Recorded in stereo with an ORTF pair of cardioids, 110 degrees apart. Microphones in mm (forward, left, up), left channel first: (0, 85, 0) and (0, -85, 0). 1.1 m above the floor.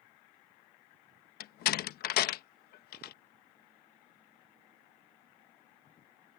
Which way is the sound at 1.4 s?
60° left.